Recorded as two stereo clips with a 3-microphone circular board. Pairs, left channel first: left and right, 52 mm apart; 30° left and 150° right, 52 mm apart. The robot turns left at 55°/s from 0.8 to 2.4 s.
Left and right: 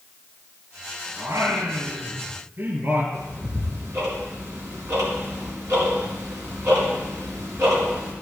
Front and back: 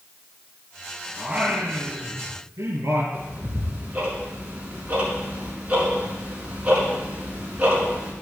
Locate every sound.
1.2 s singing: 65° right, 4.5 m; by 3.0 s 130° right, 4.5 m
3.1 s ticking: 85° right, 4 m